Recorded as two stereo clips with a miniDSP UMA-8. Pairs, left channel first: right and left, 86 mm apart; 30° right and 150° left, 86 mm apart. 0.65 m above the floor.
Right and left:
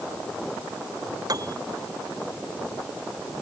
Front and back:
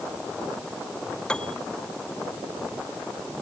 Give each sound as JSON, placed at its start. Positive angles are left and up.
{"t": 1.3, "sound": "a piano", "azimuth_deg": 50}